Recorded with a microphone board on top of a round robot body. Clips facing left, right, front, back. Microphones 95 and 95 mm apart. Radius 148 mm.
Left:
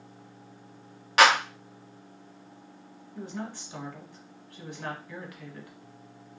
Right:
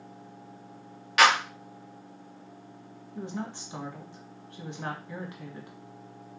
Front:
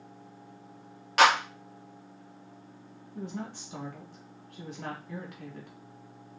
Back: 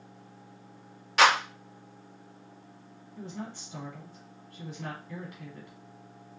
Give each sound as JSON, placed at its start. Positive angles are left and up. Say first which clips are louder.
{"t": 1.2, "sound": "a clap", "louder": "left 1 dB, even", "azimuth_deg": 35, "distance_m": 1.7}
{"t": 3.1, "sound": "a woman speaking", "louder": "right 1 dB, front 2 dB", "azimuth_deg": -25, "distance_m": 1.4}